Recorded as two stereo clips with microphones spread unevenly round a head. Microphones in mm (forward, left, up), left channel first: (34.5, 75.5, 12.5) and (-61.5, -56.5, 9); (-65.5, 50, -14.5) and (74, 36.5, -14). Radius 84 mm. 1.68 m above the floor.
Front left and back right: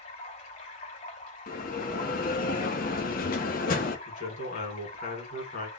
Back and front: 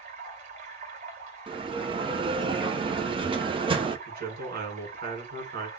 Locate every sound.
0.0 s running water: 20° left, 2.5 m
1.5 s a bell: 40° left, 0.8 m
4.1 s a man speaking: 10° left, 2 m